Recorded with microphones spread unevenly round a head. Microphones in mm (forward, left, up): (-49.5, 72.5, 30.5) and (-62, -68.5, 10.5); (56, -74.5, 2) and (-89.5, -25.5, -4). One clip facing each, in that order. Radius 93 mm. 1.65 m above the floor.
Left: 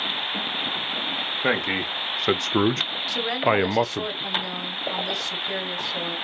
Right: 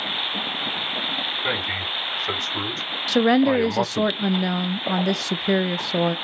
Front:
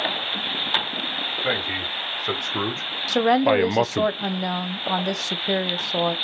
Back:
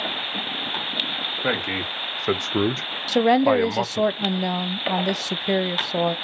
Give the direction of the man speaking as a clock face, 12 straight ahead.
8 o'clock.